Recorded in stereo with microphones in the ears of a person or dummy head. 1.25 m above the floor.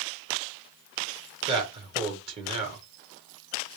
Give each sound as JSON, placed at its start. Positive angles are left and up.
{"t": 1.5, "sound": "a man speaking", "side_deg": -30, "distance_m": 1.5}